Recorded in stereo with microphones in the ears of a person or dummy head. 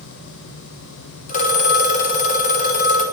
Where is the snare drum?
No snare drum in this recording.